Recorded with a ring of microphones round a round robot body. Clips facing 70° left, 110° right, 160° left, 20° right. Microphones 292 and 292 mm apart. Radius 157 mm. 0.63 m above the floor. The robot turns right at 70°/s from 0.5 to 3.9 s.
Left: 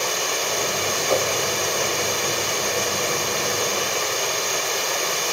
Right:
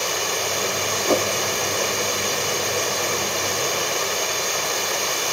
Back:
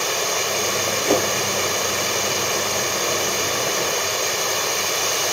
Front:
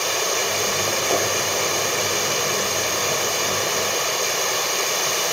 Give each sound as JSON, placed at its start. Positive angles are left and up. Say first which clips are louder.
{"t": 1.1, "sound": "a whoosh", "louder": "right 2 dB, back 5 dB", "azimuth_deg": -160, "distance_m": 1.1}